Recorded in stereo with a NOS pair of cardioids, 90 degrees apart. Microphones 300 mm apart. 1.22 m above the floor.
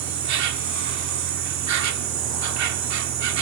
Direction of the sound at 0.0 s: 65° right.